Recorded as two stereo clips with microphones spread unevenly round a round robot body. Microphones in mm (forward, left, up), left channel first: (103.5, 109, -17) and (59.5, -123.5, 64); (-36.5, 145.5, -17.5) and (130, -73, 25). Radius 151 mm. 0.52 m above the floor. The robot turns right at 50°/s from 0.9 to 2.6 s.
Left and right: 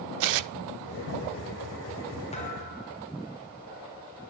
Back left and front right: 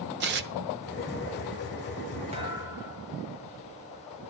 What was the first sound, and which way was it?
Tearing paper, 110° right.